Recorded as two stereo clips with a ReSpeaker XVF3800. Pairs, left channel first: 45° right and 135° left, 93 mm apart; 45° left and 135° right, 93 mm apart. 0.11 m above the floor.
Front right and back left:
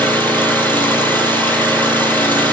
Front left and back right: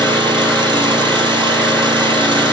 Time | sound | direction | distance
0.0 | an engine running | 115° right | 3 m